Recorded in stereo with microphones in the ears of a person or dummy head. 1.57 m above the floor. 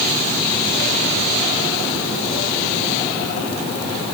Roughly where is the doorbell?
I don't hear a doorbell.